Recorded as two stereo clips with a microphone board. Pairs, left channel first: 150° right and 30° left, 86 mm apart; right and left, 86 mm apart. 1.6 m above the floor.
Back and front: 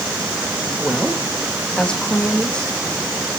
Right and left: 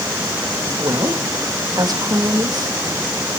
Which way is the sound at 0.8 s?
130° left.